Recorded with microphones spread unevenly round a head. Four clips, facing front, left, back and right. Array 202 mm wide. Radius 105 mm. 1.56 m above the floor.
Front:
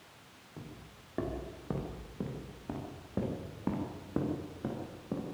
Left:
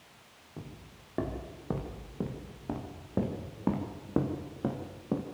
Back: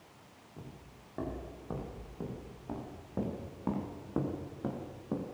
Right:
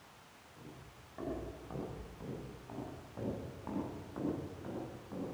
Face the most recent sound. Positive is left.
turn(degrees=95)